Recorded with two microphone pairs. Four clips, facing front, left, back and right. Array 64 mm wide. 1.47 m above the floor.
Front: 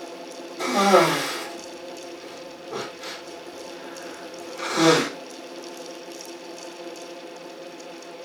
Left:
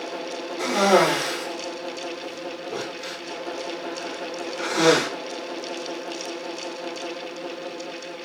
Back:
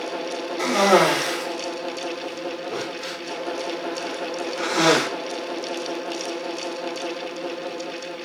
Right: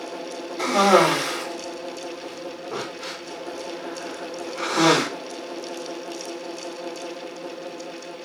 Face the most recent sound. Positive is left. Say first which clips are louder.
# right 2 dB, even
turn(degrees=-120)